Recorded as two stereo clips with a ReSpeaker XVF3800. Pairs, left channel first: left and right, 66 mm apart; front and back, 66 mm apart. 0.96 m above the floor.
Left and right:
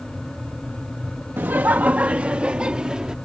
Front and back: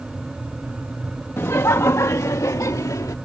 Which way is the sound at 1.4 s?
40° right.